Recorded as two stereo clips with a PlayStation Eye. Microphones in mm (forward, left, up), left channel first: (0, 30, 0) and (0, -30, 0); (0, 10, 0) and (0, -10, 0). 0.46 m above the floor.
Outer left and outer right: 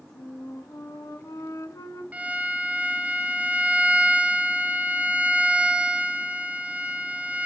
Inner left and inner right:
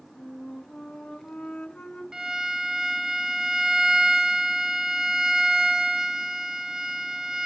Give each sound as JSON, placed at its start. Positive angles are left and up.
{"t": 0.1, "sound": "a flute", "side_deg": 70, "distance_m": 4.0}
{"t": 2.1, "sound": "a violin", "side_deg": -25, "distance_m": 3.0}